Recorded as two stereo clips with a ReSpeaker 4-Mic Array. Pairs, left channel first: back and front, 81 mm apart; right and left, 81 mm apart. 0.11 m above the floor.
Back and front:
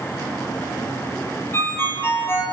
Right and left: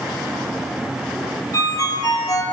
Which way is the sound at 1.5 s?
125° right.